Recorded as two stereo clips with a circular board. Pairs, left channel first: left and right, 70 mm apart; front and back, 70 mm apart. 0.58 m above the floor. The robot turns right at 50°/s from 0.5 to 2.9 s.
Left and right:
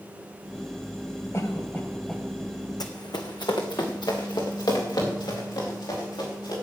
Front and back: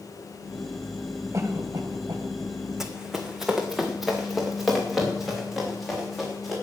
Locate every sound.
1.3 s a cough: 140° left, 2.5 m; by 2.2 s 175° right, 2.5 m
2.8 s running footsteps: 95° left, 1.6 m; by 6.5 s 90° left, 7.5 m